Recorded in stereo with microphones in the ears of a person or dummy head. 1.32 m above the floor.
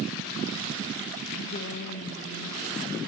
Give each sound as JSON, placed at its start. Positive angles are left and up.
{"t": 1.4, "sound": "a woman speaking", "side_deg": 75, "distance_m": 1.9}